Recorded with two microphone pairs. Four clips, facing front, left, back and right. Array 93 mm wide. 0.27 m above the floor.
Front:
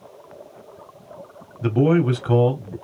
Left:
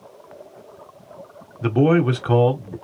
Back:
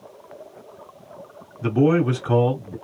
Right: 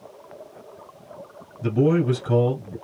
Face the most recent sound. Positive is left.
turn(degrees=85)